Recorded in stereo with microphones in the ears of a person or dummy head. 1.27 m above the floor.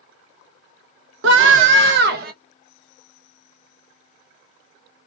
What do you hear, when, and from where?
1.2 s a scream: 80° right, 0.9 m; by 2.3 s 60° right (ahead or behind), 1.2 m